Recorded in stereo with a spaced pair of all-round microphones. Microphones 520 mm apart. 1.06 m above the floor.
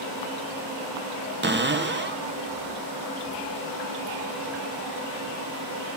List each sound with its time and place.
1.4 s a cupboard door: 20° right (ahead or behind), 0.5 m